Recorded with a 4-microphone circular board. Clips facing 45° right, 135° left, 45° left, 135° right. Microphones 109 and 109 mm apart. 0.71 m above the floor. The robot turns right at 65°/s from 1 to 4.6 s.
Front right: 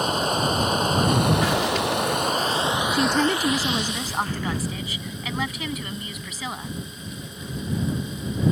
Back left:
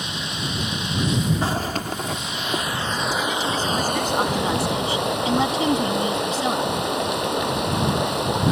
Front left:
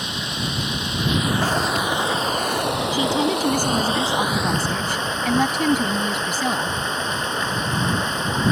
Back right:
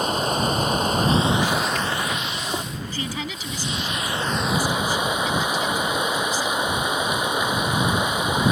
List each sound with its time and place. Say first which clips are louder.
0.0 s running water: front right 8 dB, back right 7 dB; 90° right; by 8.5 s 145° left
1.4 s a zipper: front right 3 dB, front left 1 dB; 80° left; by 2.6 s 160° left
2.9 s a woman speaking: front right 3 dB, front left 10 dB; 35° right; by 6.8 s 75° left